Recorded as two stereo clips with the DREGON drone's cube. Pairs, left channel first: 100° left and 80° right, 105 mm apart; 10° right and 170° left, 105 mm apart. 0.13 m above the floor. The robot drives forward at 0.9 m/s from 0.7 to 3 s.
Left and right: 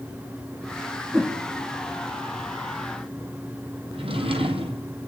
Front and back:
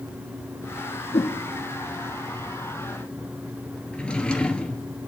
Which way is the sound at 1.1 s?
10° right.